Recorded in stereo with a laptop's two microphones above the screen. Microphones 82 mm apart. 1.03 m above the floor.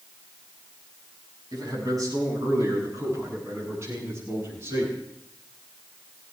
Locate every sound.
1.5 s a man speaking: 50° right (ahead or behind), 7.5 m; by 5.0 s 30° right (ahead or behind), 10.5 m